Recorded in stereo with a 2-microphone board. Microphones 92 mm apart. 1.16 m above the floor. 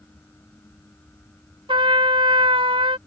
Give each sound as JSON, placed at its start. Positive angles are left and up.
{"t": 1.7, "sound": "a trumpet", "side_deg": -70}